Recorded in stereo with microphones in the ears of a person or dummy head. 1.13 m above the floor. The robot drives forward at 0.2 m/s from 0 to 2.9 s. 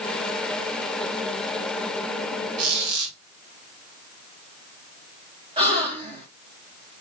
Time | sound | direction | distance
2.6 | a squeak | 80° right | 2.5 m
5.6 | a gasp | 30° right (ahead or behind) | 1.2 m